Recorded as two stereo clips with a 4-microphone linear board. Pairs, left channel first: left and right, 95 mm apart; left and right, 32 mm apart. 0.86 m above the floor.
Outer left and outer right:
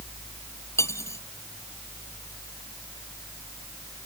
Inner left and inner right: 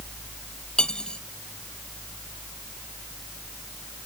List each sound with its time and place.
0.8 s cutlery clinking: 35° left (ahead or behind)